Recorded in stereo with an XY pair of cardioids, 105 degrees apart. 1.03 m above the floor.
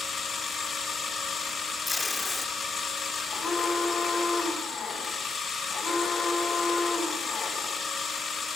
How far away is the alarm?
About 10 m.